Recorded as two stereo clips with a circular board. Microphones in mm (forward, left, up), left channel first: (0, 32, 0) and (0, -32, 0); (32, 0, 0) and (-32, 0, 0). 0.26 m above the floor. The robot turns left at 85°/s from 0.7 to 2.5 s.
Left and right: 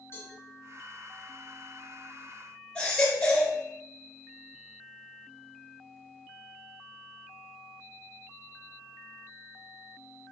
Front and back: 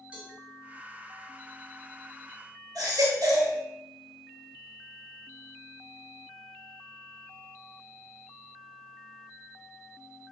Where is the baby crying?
165° left, 2.5 m.